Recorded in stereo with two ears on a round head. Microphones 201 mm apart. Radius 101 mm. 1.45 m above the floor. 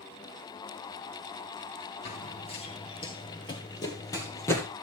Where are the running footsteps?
30° left (ahead or behind), 1.6 m; by 4.7 s 10° left (ahead or behind), 2.5 m.